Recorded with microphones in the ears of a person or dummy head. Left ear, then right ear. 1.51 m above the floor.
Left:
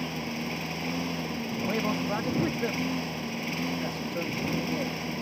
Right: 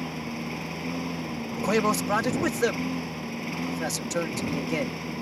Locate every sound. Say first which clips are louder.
0.0 s a lawn mower: left 1 dB; 15° left (ahead or behind)
1.6 s a man speaking: right 6 dB; 80° right